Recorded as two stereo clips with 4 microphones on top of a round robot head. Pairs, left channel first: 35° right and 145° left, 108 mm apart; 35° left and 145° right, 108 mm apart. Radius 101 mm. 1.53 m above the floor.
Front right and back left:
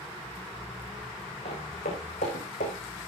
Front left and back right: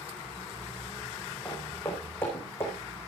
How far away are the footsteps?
About 4.5 m.